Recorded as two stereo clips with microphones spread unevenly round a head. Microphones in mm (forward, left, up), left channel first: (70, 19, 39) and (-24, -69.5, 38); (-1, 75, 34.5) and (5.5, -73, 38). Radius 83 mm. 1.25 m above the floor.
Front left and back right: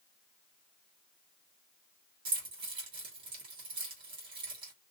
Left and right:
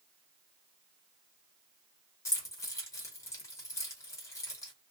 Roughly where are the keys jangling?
Behind.